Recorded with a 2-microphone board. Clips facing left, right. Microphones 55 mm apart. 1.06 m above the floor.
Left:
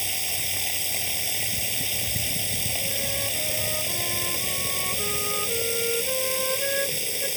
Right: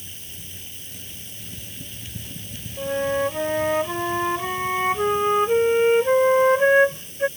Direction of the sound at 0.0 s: 85° left.